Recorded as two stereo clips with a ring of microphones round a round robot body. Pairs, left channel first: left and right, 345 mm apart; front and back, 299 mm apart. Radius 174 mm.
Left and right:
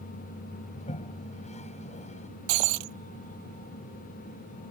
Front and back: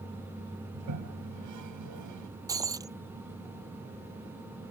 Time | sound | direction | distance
0.7 | a toilet flushing | 160° left | ?
2.5 | breaking glass | 100° right | ?